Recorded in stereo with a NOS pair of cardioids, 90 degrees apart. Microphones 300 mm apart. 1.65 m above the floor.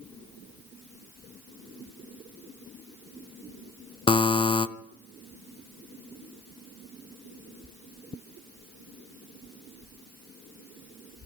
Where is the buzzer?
15° left, 0.7 m.